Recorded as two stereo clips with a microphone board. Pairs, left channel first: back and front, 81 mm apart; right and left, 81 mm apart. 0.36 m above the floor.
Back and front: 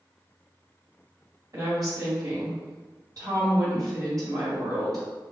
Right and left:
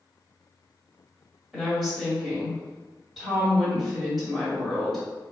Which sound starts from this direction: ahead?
A woman speaking, at 1.5 s.